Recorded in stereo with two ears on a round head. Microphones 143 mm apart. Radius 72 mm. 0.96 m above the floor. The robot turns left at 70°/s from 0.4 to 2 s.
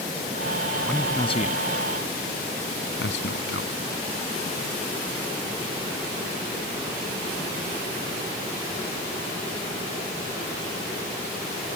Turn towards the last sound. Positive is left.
turn(degrees=85)